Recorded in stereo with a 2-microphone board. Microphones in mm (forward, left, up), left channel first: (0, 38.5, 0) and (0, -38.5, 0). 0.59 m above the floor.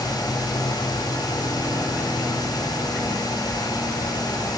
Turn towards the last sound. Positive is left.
No sound to turn to.